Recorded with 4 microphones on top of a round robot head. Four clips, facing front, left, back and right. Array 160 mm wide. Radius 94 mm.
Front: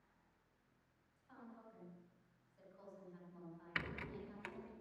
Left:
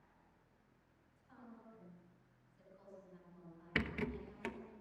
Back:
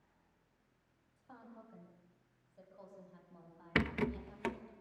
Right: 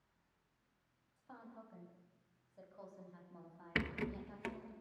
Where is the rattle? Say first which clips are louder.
Even, back 12 dB; straight behind, 1.3 m.